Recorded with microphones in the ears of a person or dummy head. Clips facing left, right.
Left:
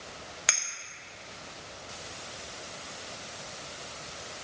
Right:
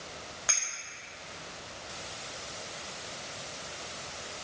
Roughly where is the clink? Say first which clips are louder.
Left 3 dB; left.